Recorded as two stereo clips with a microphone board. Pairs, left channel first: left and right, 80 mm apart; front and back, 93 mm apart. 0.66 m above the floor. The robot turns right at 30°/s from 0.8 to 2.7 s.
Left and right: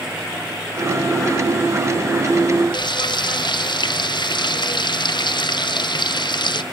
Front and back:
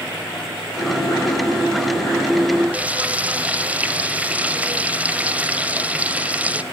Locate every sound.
2.7 s frying: 105° left, 1.0 m